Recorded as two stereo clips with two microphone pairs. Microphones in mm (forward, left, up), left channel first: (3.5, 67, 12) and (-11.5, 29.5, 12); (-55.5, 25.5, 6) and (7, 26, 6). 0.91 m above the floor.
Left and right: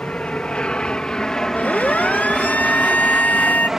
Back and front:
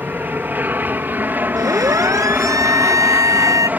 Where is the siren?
20° left; by 3.7 s 25° left.